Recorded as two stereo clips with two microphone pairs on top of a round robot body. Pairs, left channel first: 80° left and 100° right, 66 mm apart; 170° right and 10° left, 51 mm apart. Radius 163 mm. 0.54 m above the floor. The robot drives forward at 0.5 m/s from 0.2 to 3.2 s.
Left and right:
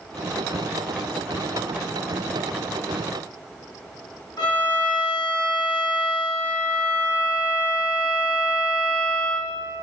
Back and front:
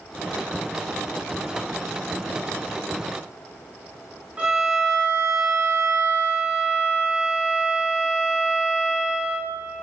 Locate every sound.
4.4 s a violin: 70° left, 2.5 m